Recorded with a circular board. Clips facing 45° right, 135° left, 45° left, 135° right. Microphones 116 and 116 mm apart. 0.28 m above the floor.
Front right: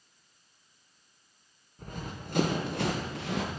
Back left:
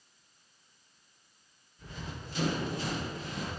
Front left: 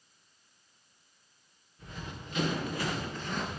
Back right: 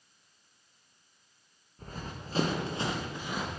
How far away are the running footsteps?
About 2 m.